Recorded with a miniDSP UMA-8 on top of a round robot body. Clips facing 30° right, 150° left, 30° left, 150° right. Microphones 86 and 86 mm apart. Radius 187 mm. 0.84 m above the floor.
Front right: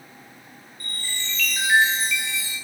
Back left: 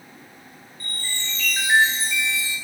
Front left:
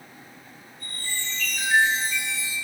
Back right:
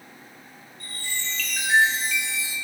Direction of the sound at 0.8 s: 150° right.